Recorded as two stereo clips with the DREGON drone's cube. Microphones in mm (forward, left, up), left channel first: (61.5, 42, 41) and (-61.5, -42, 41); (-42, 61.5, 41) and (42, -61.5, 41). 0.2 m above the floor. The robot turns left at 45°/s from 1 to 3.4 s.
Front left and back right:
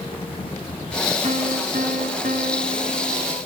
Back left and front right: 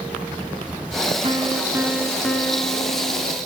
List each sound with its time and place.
1.2 s a piano: 105° right, 1.2 m; by 3.4 s 160° left, 1.2 m